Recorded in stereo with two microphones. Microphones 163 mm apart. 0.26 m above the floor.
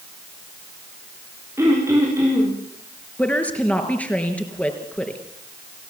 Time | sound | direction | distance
1.6 | throat clearing | 15° right (ahead or behind) | 9.5 m
3.2 | a woman speaking | 10° left (ahead or behind) | 4 m